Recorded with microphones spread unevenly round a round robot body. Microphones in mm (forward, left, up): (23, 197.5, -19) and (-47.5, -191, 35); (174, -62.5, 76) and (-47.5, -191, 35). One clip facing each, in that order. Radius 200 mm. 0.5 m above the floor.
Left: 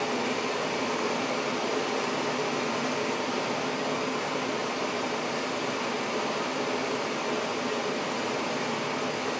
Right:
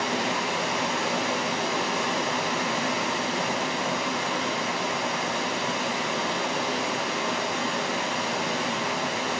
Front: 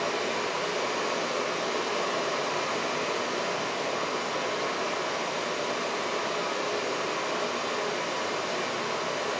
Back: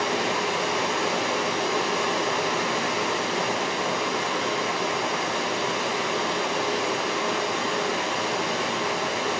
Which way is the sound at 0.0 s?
140° right.